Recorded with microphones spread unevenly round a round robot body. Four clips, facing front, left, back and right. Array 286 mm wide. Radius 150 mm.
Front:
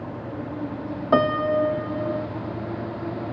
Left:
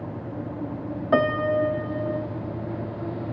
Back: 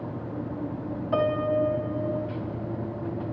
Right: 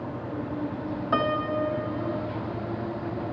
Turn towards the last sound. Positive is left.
turn(degrees=20)